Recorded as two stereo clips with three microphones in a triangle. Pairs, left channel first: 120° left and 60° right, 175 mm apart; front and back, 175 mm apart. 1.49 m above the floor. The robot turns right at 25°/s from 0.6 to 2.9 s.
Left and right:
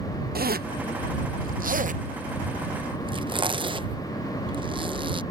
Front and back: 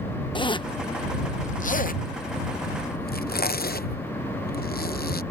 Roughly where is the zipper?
Ahead right.